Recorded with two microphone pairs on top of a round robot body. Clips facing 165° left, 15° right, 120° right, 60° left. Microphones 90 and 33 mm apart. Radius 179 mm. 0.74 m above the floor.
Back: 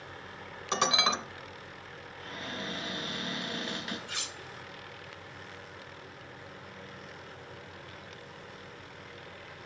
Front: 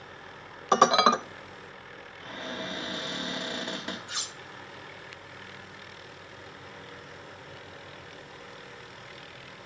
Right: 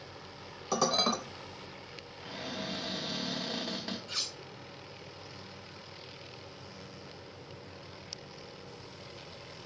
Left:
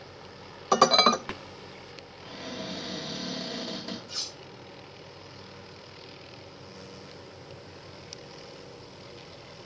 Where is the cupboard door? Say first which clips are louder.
Front 3 dB, left 1 dB; 75° right, 4 m.